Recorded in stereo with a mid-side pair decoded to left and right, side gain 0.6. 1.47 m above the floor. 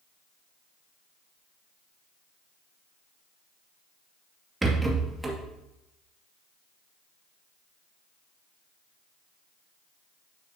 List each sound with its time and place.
4.6 s a rattle: 15° right, 2 m